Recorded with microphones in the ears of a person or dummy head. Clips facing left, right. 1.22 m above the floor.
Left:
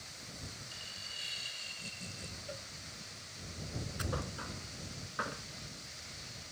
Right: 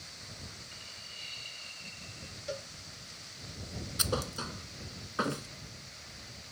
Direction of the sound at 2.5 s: 60° right (ahead or behind).